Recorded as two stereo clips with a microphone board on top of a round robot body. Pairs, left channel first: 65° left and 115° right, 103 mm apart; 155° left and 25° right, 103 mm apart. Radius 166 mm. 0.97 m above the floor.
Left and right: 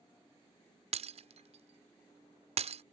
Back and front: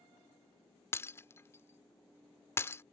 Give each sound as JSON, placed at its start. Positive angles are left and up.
{"t": 0.9, "sound": "breaking glass", "azimuth_deg": -135}